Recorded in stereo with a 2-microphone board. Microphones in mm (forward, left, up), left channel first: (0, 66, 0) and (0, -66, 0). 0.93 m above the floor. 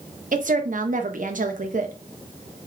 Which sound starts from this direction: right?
A woman speaking, at 0.3 s.